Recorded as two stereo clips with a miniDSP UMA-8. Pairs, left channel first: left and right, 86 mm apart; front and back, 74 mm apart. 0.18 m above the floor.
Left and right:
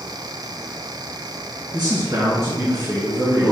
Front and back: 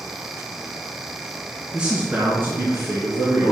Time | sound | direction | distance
1.7 | a man speaking | 100° right | 2.5 m